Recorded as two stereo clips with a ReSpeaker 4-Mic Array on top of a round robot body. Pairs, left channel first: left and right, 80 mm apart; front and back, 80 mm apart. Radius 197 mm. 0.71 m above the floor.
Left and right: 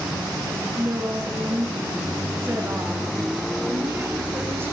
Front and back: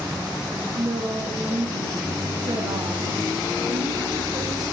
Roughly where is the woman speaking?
Behind right.